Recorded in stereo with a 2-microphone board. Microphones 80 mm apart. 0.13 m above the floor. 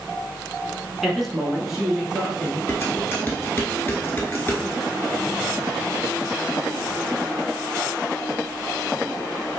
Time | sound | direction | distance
1.0 | a man speaking | centre (ahead or behind) | 1.1 m
2.7 | dishes clattering | 25° left (ahead or behind) | 1.3 m